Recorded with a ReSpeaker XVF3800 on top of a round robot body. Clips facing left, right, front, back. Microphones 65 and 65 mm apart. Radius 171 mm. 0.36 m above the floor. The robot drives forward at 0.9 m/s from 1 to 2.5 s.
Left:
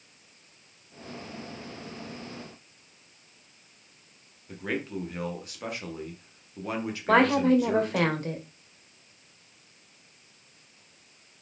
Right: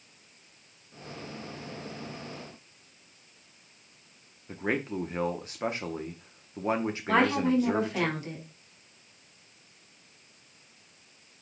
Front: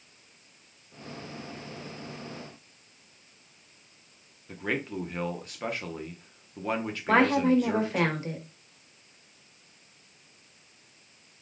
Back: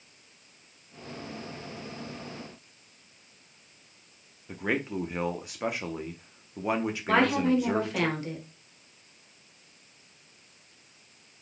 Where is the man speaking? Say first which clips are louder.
Right 2 dB, back 2 dB; 110° right, 1.0 m.